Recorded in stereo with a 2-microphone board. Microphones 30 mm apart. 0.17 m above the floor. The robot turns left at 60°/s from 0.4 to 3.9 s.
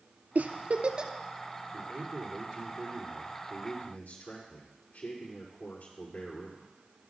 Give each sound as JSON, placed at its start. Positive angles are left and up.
{"t": 0.3, "sound": "a giggle", "side_deg": -65, "distance_m": 0.6}
{"t": 1.7, "sound": "a man speaking", "azimuth_deg": -95, "distance_m": 4.5}